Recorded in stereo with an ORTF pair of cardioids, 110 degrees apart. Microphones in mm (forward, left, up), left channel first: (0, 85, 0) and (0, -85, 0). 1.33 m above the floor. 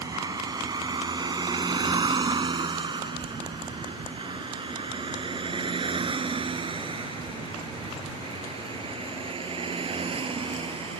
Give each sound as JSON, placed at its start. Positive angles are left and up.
{"t": 0.0, "sound": "a vehicle", "azimuth_deg": -25}